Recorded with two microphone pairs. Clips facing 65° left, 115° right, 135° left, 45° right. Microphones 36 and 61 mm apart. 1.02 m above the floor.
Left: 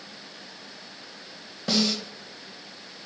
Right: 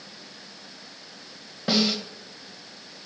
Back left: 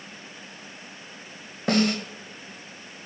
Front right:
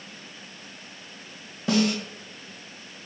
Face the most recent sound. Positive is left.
turn(degrees=165)